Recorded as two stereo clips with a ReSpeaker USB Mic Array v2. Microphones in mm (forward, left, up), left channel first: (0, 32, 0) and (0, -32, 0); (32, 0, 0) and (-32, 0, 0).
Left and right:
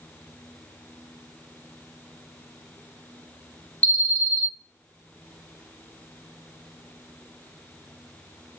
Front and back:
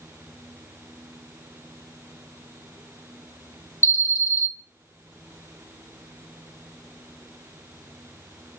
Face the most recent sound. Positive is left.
turn(degrees=30)